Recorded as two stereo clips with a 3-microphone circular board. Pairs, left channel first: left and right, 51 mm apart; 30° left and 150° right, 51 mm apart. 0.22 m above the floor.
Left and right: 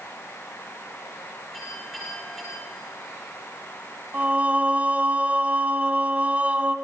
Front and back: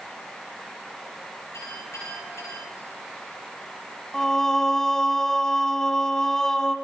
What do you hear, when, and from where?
1.5 s a clink: straight ahead, 9.5 m
4.1 s singing: 45° right, 1.1 m